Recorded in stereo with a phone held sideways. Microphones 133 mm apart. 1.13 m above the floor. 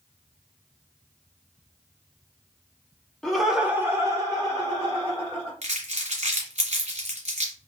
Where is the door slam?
No door slam in this recording.